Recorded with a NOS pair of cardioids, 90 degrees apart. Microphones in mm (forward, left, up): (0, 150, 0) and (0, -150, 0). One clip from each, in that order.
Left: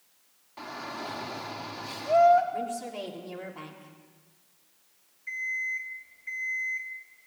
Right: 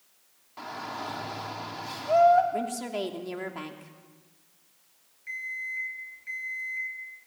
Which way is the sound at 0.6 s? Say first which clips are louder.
Right 1 dB; straight ahead.